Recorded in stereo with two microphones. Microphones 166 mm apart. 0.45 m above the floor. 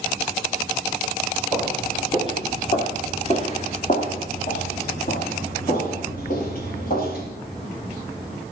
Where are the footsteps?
20° left (ahead or behind), 3 m; by 7.2 s 60° left (ahead or behind), 6 m.